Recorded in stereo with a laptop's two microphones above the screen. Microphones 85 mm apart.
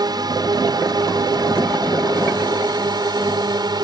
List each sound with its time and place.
0.0 s a drone: 55° right (ahead or behind)